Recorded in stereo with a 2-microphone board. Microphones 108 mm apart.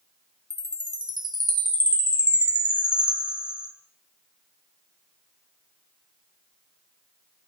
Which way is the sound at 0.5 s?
40° right (ahead or behind).